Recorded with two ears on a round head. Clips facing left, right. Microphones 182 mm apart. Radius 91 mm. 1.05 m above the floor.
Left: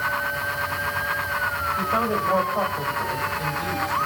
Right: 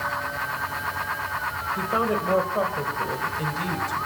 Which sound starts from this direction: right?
A woman speaking, at 1.8 s.